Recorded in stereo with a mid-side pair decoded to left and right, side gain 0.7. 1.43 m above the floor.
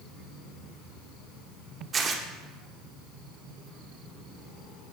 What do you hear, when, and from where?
1.9 s tearing paper: 30° right, 1.0 m